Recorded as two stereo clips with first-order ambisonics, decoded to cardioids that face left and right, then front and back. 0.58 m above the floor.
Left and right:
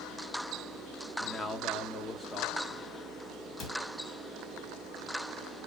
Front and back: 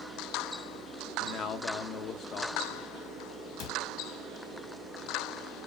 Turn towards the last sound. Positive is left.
turn(degrees=35)